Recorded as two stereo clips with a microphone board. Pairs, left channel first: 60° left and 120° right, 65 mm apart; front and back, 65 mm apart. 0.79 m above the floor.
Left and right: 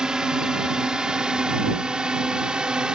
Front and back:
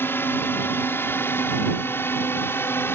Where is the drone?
45° right.